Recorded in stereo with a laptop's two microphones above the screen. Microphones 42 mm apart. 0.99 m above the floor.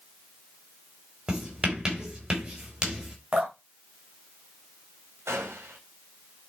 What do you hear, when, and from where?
1.3 s writing: 20° right (ahead or behind), 3 m
3.3 s dripping: 30° right (ahead or behind), 4 m
5.3 s a gunshot: 85° right, 3 m